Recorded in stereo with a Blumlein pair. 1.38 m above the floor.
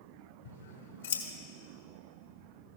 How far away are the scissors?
About 1.5 m.